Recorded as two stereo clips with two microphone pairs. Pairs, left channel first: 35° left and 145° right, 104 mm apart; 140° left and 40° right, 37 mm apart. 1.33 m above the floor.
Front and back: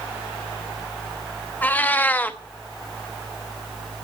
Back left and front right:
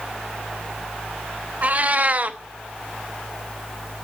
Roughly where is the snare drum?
No snare drum in this recording.